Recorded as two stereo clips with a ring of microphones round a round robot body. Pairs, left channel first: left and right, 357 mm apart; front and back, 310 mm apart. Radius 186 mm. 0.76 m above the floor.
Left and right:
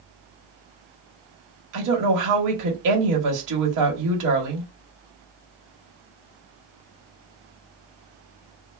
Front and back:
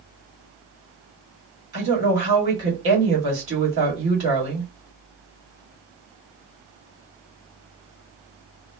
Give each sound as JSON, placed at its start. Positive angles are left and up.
{"t": 1.7, "sound": "a woman speaking", "azimuth_deg": -125, "distance_m": 1.5}